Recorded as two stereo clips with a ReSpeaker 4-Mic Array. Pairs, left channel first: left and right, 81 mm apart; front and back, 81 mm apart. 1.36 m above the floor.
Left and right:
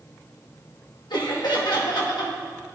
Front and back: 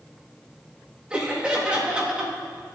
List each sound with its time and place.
1.1 s laughter: 100° left, 1.9 m